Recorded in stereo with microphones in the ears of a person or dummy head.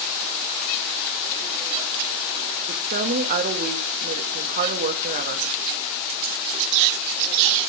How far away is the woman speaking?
About 1.8 m.